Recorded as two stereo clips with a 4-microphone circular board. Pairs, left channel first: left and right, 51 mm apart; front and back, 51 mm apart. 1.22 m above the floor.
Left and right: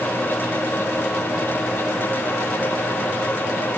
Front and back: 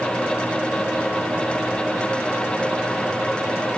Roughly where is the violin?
No violin in this recording.